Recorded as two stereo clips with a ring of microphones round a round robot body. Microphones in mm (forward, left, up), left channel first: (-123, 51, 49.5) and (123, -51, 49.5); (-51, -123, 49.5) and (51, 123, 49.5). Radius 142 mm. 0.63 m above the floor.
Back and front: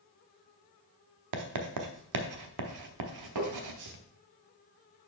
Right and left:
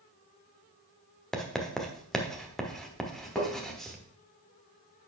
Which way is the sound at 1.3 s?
25° right.